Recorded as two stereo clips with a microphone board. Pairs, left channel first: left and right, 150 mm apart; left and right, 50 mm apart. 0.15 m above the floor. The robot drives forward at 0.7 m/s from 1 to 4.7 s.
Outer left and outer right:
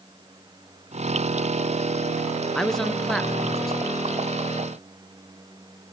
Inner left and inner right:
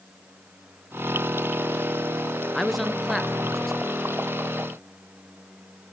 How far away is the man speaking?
About 1.8 m.